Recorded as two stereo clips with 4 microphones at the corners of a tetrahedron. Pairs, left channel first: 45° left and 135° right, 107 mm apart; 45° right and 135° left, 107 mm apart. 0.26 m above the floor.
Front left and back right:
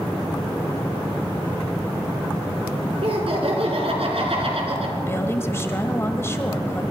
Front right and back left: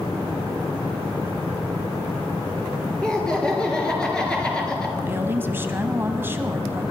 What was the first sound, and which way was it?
Laughter, 125° right.